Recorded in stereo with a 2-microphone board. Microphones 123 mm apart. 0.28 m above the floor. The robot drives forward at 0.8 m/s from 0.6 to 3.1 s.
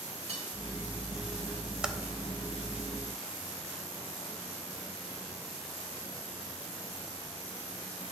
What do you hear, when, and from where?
0.3 s cutlery clinking: 60° right (ahead or behind), 2 m
1.8 s typing on a keyboard: 5° right (ahead or behind), 0.6 m